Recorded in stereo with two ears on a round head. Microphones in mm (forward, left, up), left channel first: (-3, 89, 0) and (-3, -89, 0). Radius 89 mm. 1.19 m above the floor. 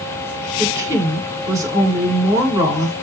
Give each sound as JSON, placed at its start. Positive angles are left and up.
{"t": 0.6, "sound": "a woman speaking", "side_deg": -20, "distance_m": 5.5}